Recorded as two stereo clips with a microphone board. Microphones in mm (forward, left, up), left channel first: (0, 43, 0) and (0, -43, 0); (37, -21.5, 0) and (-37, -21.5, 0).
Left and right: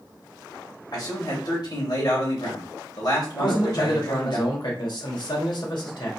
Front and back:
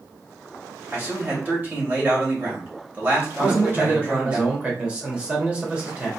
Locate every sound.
0.9 s a man speaking: 120° left, 2.5 m
3.4 s a man speaking: 110° left, 1.8 m